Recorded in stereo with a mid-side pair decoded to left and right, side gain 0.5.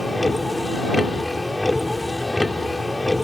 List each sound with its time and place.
0.0 s a vehicle: 15° left